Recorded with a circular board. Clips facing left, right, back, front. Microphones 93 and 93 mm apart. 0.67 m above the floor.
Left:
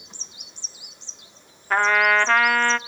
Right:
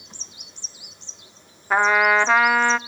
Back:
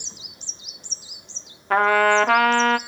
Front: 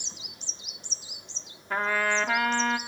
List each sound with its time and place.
1.7 s a trumpet: 170° right, 0.6 m